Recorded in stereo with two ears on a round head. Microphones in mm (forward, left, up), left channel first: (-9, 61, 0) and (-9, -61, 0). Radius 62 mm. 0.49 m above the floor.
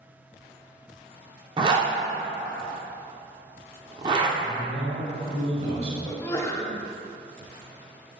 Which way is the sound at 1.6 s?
35° right (ahead or behind).